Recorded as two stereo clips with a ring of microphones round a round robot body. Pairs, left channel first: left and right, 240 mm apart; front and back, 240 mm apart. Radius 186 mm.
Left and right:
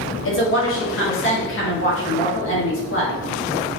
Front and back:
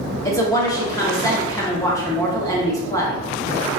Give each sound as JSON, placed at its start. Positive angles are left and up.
{"t": 0.2, "sound": "a woman speaking", "azimuth_deg": 75, "distance_m": 1.5}